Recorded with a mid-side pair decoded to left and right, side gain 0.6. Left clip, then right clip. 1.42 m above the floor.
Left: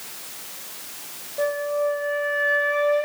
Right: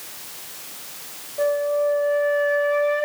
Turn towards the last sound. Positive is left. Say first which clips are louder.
# right 3 dB
turn(degrees=10)